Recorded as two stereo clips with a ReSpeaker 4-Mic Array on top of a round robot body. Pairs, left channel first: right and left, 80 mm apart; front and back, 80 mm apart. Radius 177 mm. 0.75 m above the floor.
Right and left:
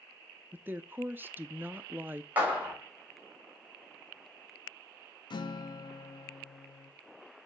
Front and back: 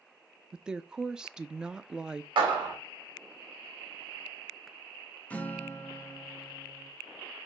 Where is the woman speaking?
110° left, 0.6 m.